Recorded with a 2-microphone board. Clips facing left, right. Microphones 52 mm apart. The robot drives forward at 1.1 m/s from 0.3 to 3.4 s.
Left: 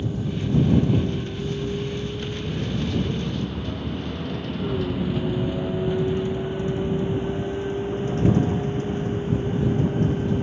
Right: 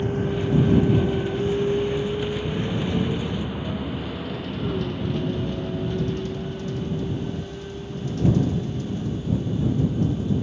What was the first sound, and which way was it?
A vehicle, 50° right (ahead or behind).